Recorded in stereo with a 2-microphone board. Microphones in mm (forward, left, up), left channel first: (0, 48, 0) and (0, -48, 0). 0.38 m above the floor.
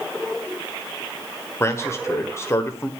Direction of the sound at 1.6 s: 30° left (ahead or behind).